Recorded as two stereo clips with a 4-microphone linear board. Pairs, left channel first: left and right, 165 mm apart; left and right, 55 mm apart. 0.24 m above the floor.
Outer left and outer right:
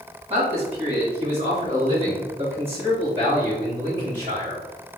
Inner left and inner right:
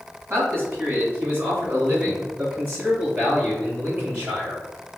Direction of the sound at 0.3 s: 45° right (ahead or behind).